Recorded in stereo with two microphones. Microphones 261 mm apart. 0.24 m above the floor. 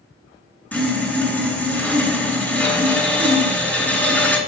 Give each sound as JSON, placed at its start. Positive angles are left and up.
{"t": 0.7, "sound": "sawing", "side_deg": 5, "distance_m": 2.5}